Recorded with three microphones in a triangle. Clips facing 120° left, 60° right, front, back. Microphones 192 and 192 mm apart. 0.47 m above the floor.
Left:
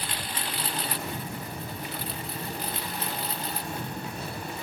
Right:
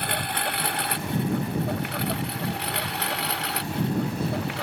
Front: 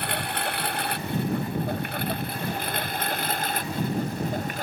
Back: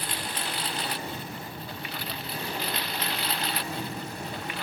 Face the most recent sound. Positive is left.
turn(degrees=-45)